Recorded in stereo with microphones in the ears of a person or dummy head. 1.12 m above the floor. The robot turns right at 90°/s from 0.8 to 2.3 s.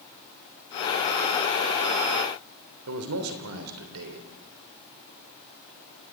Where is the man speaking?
85° right, 3 m.